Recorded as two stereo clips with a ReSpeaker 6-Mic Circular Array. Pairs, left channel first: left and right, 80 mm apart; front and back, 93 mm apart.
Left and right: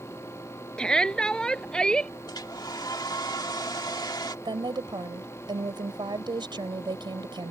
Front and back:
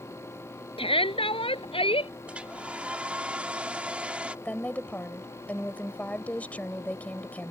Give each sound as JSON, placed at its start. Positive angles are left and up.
{"t": 0.8, "sound": "a shout", "azimuth_deg": 10}
{"t": 2.3, "sound": "a hair dryer", "azimuth_deg": 105}
{"t": 4.5, "sound": "a woman speaking", "azimuth_deg": -75}